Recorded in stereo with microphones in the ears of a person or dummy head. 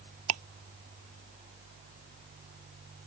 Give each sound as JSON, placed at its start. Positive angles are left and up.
{"t": 0.3, "sound": "ticking", "side_deg": -80}